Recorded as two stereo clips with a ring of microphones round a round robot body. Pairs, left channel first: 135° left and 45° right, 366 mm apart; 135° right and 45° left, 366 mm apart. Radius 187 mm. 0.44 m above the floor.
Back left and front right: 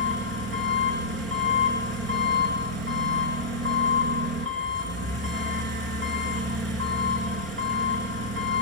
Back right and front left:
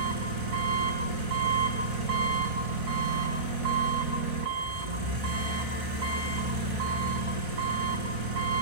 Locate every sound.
0.0 s an engine running: 15° left, 6.5 m